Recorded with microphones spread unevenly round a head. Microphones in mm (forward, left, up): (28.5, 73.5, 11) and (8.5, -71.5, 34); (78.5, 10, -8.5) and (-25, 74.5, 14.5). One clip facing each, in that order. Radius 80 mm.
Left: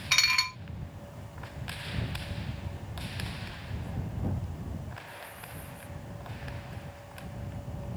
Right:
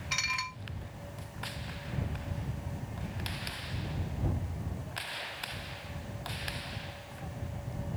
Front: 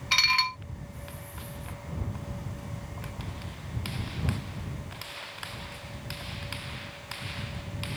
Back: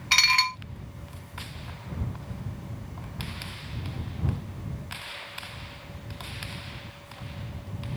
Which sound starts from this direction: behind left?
Dishes clattering, at 0.1 s.